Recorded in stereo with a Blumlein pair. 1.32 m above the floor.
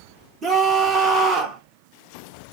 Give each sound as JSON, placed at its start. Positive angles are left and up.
{"t": 0.4, "sound": "a scream", "azimuth_deg": -25, "distance_m": 1.3}